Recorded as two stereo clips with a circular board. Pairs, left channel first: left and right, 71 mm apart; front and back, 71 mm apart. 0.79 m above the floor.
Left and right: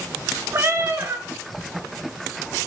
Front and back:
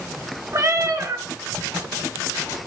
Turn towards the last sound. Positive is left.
turn(degrees=-140)